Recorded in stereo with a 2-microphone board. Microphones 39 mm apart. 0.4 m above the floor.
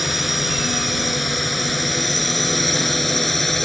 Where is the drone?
Centre (ahead or behind); by 3.7 s 5° left (ahead or behind).